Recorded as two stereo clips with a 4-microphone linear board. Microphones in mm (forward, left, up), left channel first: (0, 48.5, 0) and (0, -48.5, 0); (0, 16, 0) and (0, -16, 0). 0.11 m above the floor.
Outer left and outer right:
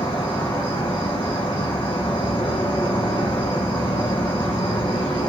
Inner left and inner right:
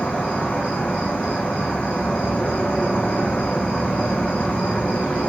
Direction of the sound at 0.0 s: 55° left (ahead or behind).